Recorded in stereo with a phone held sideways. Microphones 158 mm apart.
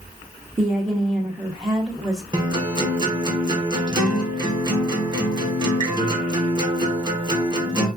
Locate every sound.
0.6 s a woman speaking: 20° right (ahead or behind), 0.7 m
2.3 s a guitar: 30° right (ahead or behind), 0.9 m